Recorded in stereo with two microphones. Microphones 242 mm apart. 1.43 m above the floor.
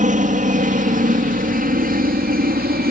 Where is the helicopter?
30° right (ahead or behind); by 2.9 s 35° right (ahead or behind).